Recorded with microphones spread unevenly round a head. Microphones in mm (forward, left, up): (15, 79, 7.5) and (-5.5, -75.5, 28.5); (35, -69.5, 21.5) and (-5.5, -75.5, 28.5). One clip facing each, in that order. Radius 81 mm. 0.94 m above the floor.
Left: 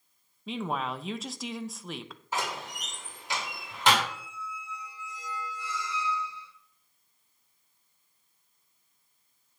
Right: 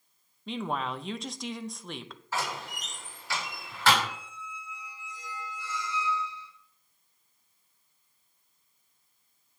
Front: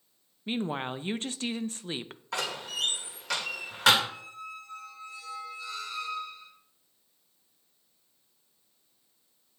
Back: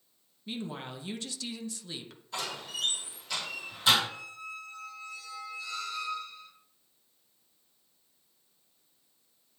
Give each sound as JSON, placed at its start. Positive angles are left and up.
{"t": 0.5, "sound": "a woman speaking", "azimuth_deg": 0, "distance_m": 0.6}
{"t": 2.3, "sound": "a door slam", "azimuth_deg": 10, "distance_m": 2.5}
{"t": 4.0, "sound": "a squeak", "azimuth_deg": 80, "distance_m": 4.5}